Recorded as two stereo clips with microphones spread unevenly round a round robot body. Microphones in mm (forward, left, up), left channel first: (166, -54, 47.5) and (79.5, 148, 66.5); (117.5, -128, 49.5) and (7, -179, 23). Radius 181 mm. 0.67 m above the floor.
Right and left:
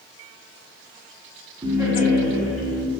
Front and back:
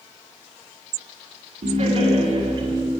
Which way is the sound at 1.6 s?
170° right.